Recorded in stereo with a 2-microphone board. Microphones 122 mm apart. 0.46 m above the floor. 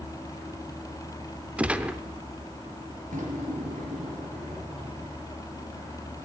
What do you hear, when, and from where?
1.6 s a gunshot: 10° right (ahead or behind), 0.6 m
3.1 s a drawer: 85° right, 4 m